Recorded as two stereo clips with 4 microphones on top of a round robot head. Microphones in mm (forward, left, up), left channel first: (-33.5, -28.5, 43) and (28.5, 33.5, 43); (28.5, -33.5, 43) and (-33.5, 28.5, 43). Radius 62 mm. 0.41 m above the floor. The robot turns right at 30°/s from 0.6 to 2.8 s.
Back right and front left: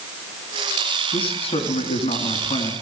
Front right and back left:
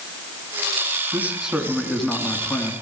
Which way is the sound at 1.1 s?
155° right.